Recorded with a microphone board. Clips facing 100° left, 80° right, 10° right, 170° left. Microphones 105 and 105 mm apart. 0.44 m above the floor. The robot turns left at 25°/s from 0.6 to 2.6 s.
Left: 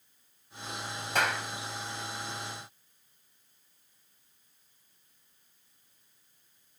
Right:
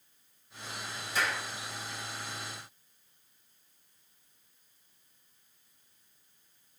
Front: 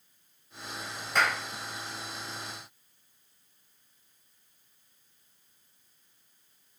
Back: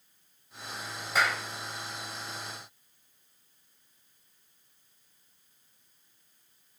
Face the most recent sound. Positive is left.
turn(degrees=50)